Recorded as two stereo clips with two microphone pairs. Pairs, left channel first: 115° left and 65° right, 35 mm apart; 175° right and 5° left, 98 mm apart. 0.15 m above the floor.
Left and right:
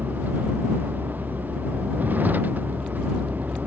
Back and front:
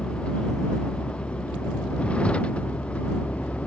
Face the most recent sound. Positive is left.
turn(degrees=-100)